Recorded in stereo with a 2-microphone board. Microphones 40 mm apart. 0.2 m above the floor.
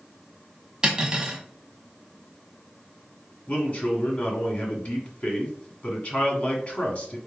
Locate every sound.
0.8 s cutlery clinking: 20° right (ahead or behind), 0.8 m
3.5 s a man speaking: 35° left (ahead or behind), 1.3 m